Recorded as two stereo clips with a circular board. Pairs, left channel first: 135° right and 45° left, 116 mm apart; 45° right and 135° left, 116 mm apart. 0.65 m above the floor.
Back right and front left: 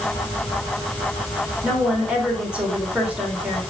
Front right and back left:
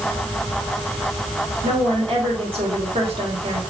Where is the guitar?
No guitar in this recording.